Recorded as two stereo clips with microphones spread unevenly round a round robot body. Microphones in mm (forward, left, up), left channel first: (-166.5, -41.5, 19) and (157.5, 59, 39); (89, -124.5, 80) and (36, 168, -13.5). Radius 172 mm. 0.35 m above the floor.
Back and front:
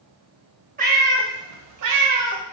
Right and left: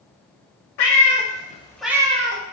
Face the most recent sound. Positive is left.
turn(degrees=60)